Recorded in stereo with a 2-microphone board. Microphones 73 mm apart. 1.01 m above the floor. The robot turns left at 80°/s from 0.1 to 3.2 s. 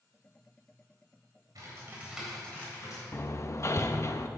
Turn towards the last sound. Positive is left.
turn(degrees=40)  # may be behind; listen again after turning